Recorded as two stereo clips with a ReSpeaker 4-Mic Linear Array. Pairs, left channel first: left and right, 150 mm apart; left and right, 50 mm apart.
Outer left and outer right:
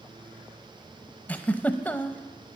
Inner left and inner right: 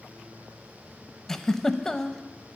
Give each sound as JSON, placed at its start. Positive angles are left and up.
{"t": 1.3, "sound": "a giggle", "side_deg": 10, "distance_m": 0.6}